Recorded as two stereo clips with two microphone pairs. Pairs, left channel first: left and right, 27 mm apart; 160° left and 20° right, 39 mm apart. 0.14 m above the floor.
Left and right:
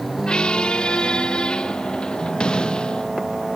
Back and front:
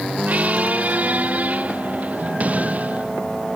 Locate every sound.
0.3 s a squeak: 35° left